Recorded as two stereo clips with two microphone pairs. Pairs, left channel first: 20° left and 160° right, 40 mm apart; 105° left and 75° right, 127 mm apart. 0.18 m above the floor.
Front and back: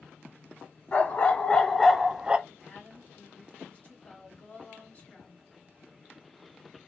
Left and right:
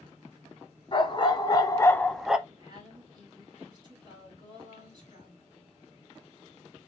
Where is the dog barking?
65° left, 0.9 m; by 2.4 s 145° right, 0.5 m.